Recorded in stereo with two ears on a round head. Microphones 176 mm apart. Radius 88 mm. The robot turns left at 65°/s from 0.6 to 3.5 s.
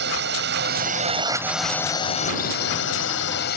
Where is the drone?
115° right; by 3.6 s 60° left.